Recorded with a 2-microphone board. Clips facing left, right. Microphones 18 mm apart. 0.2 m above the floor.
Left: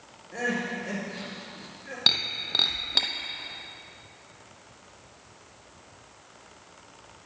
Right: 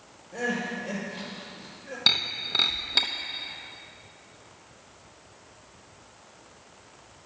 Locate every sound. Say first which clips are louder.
0.3 s crying: even; 30° left (ahead or behind), 4 m
2.1 s breaking glass: even; 5° left (ahead or behind), 1.0 m